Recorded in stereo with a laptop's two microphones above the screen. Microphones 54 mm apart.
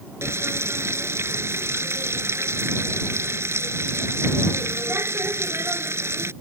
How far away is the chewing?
No chewing in this recording.